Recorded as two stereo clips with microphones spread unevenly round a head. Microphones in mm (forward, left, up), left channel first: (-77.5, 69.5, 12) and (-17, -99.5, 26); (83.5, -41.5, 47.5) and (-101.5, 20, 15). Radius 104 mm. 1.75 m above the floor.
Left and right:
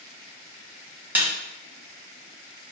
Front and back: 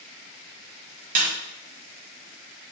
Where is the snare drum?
145° right, 1.1 m.